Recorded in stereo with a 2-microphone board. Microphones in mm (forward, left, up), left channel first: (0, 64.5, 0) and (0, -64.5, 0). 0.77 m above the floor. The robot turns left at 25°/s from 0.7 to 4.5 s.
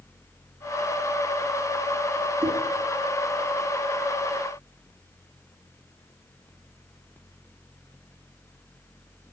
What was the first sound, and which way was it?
Knocking, 85° right.